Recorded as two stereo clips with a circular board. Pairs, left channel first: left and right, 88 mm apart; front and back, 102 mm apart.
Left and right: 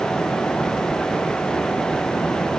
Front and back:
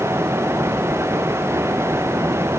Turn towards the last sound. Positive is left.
No sound to turn to.